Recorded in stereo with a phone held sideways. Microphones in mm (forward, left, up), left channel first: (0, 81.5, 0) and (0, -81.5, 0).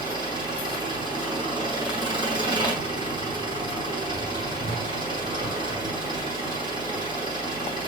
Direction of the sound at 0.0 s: 30° right (ahead or behind).